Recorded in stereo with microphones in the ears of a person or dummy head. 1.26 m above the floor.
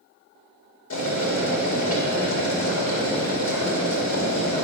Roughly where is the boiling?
Left.